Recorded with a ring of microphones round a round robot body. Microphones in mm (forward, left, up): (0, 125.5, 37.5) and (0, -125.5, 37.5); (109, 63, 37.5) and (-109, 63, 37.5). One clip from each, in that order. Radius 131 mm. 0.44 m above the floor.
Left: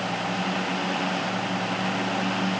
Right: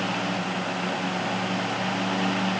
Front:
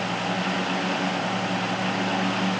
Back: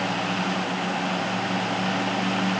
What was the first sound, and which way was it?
Only background noise.